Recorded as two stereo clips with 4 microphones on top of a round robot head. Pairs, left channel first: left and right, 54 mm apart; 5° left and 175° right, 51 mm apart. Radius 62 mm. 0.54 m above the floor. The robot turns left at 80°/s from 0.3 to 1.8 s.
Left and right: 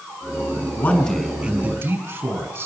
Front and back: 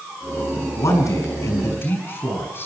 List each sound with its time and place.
0.8 s a man speaking: 40° left, 6 m; by 2.7 s 40° right, 6 m